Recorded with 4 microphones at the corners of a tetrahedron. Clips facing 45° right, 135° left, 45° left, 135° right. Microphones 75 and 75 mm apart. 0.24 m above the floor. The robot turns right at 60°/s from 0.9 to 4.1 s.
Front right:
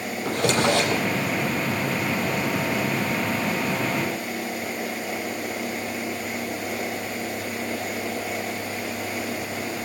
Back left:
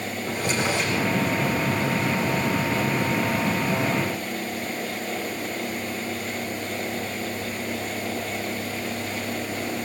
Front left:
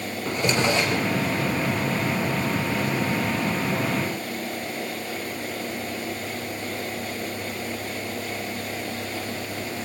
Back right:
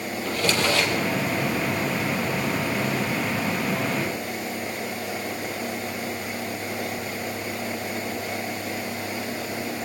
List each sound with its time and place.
0.2 s a drawer: 25° right, 5 m; by 1.1 s 15° right, 5 m